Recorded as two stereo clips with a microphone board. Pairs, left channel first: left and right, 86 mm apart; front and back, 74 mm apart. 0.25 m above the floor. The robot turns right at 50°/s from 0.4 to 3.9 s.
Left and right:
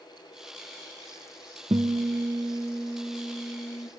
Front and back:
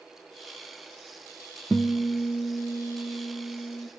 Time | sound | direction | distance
1.7 | a guitar | 75° right | 0.9 m